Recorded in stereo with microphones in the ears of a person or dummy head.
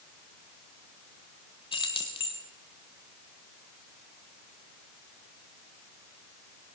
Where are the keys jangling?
30° left (ahead or behind), 1.4 m.